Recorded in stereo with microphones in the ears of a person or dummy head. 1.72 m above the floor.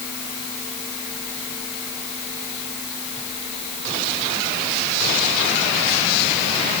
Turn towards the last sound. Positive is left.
No sound to turn to.